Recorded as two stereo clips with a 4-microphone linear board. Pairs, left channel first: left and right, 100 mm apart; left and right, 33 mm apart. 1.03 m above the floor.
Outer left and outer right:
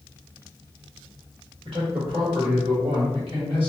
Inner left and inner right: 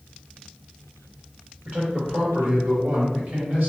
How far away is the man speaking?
About 1.7 m.